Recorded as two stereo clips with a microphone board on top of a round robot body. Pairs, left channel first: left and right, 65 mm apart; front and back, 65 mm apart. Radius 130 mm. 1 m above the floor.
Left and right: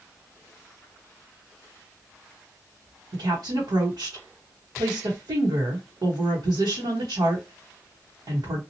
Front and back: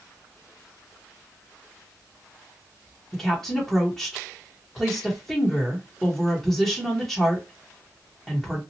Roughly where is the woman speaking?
Right.